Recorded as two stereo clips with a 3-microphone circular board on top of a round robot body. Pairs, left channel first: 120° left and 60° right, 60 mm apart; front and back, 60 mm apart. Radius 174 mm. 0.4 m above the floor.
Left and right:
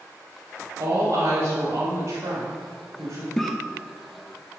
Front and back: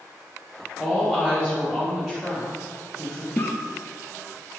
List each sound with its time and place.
0.8 s a woman speaking: 75° right, 3 m
3.4 s a cough: 40° left, 1.1 m